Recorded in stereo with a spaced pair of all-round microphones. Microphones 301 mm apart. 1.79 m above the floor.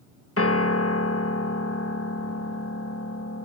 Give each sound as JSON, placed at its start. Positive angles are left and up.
{"t": 0.4, "sound": "a piano", "side_deg": 50}